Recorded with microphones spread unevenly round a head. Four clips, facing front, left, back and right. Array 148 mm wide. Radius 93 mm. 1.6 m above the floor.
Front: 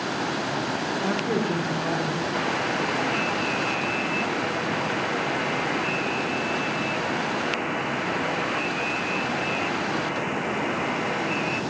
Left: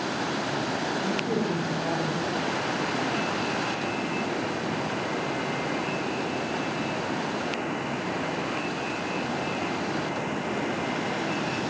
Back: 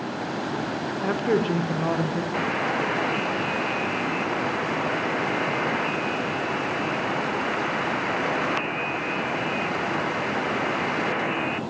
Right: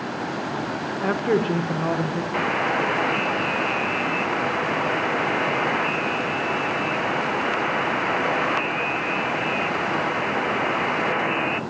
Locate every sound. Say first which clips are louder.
1.0 s a woman speaking: right 10 dB, back 4 dB; 85° right, 1.7 m; by 2.2 s 110° right, 1.9 m
2.3 s a buzzer: right 5 dB, back 1 dB; 145° right, 0.6 m